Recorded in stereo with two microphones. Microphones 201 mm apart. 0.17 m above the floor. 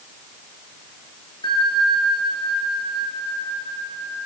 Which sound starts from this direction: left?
A bell, at 1.4 s.